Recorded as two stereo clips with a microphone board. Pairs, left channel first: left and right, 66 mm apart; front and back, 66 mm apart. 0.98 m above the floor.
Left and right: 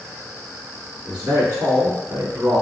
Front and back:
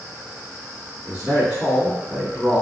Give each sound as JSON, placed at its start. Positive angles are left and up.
{"t": 1.1, "sound": "a man speaking", "azimuth_deg": -120, "distance_m": 1.5}